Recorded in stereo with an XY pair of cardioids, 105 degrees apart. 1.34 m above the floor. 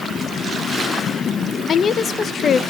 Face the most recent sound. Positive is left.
turn(degrees=50)